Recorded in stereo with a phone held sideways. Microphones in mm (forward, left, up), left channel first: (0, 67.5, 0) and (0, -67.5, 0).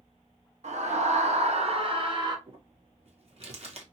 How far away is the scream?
About 1.1 m.